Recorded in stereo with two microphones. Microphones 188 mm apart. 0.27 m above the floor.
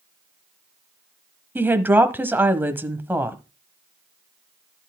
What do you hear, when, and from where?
1.6 s a woman speaking: 10° right (ahead or behind), 1.2 m